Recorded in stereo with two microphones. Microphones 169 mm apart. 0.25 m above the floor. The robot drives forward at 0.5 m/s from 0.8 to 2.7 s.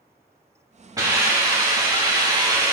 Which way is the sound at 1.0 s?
20° right (ahead or behind).